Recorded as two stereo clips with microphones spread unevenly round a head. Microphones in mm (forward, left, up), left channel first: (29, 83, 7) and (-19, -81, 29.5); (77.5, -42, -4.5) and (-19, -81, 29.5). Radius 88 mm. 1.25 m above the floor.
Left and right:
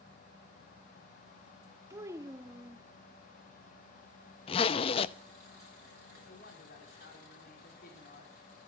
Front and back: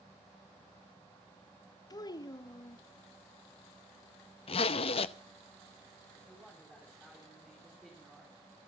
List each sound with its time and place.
1.9 s a child speaking: 35° right, 1.0 m
4.5 s a zipper: 25° left, 0.5 m
6.2 s a woman speaking: 115° left, 3.5 m